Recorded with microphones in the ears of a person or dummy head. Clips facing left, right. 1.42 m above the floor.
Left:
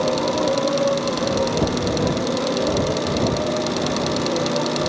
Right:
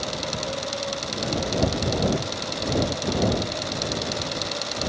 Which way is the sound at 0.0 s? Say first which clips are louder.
Left 11 dB; 75° left (ahead or behind).